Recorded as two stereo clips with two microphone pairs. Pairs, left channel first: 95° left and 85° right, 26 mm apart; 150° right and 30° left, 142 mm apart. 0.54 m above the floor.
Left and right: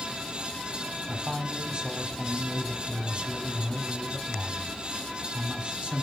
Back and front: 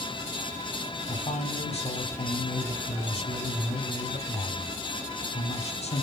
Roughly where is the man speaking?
Behind right.